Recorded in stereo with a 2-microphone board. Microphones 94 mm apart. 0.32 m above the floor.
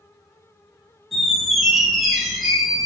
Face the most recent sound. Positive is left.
turn(degrees=0)  # may be behind; listen again after turning